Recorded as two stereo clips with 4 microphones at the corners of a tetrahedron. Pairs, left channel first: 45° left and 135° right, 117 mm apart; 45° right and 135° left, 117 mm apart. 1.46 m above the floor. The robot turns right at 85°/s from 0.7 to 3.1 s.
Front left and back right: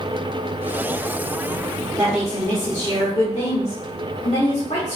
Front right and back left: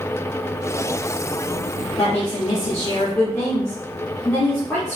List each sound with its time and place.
2.0 s a woman speaking: 75° right, 1.6 m; by 5.0 s 25° left, 1.6 m